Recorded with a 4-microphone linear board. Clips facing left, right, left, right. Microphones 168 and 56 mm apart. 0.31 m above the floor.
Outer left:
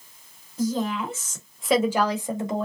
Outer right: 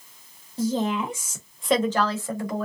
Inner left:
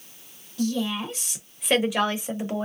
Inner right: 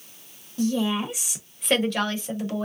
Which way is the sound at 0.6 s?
30° right (ahead or behind).